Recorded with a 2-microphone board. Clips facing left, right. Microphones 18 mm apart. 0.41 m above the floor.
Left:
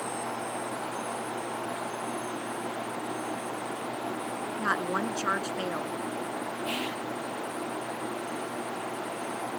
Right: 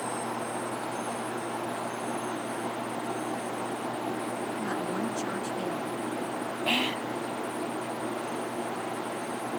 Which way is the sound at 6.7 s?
50° right (ahead or behind).